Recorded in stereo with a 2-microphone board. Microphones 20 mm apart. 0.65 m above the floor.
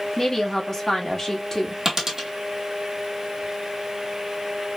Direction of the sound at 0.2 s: 20° left (ahead or behind).